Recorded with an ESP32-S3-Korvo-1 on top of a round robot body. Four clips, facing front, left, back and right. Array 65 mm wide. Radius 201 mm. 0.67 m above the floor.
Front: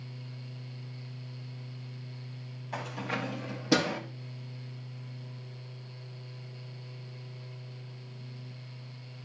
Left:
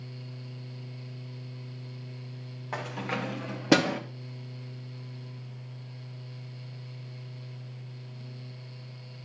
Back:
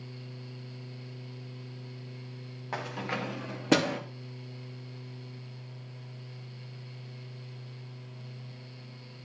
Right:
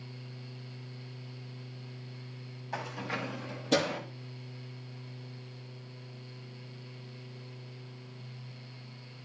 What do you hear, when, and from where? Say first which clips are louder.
2.7 s keys jangling: left 3 dB, back 1 dB; 140° left, 3 m; by 4.0 s 105° left, 1.9 m